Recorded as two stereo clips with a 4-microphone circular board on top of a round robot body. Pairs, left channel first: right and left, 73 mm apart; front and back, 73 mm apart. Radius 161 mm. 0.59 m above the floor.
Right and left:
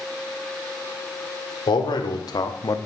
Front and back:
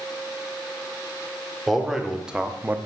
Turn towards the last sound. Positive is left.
turn(degrees=-120)